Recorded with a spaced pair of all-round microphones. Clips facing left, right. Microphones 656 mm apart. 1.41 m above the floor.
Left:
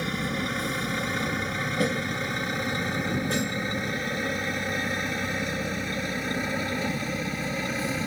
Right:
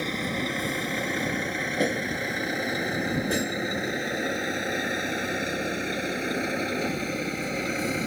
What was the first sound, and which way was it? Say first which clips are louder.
A vehicle: even; 40° left (ahead or behind).